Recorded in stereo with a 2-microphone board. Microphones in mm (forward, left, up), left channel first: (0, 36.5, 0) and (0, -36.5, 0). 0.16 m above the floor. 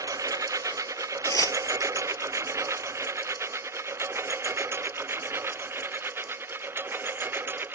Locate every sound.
0.0 s a lawn mower: 60° right (ahead or behind); by 7.8 s 35° right (ahead or behind)
1.2 s tearing paper: 55° left (ahead or behind)